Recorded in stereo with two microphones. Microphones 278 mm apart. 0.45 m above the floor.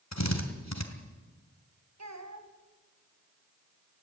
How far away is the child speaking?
About 2.5 m.